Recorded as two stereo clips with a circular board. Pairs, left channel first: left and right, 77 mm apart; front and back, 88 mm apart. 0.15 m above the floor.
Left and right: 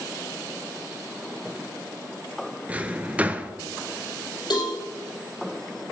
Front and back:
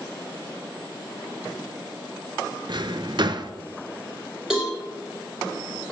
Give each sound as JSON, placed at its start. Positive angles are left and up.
{"t": 2.7, "sound": "a drawer", "azimuth_deg": -160, "distance_m": 0.5}
{"t": 4.5, "sound": "a cowbell", "azimuth_deg": 95, "distance_m": 4.5}